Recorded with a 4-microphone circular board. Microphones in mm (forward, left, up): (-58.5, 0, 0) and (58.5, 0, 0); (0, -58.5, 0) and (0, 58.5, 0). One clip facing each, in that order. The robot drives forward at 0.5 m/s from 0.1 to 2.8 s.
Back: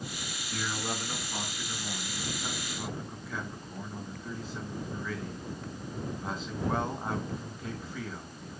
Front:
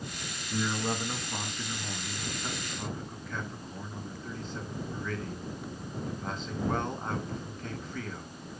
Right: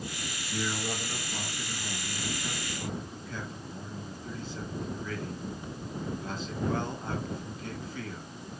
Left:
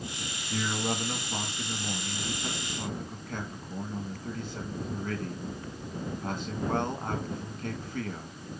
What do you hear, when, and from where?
0.5 s a man speaking: 70° left, 3 m; by 8.4 s 95° left, 3 m